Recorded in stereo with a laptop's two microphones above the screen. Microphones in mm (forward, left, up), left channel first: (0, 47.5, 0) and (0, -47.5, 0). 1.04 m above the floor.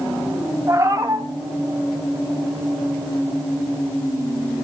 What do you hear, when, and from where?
0.7 s a cat meowing: 30° right (ahead or behind), 1.8 m